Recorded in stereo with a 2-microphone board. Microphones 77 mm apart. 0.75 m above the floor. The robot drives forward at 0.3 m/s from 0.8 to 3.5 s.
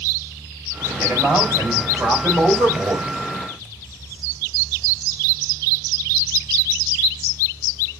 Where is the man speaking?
25° right (ahead or behind), 4 m; by 3.1 s 30° right (ahead or behind), 3.5 m.